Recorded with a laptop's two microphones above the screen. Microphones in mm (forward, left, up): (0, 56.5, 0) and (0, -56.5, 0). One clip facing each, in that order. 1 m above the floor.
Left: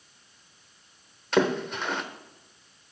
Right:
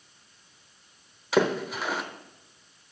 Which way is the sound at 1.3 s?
5° right (ahead or behind).